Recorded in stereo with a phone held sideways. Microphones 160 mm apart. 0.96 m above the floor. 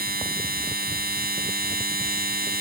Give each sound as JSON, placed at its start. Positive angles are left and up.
{"t": 0.0, "sound": "a machine running", "side_deg": -75}